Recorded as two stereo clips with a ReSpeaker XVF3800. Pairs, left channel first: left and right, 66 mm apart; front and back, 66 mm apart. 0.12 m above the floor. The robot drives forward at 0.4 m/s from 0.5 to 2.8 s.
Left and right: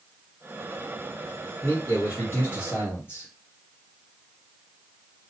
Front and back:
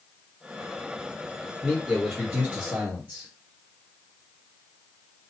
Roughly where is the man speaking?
Left.